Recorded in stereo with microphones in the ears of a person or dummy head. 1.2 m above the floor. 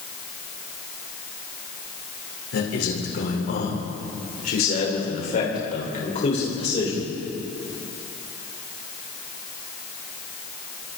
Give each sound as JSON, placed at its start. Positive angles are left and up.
{"t": 2.5, "sound": "a man speaking", "side_deg": 75, "distance_m": 5.0}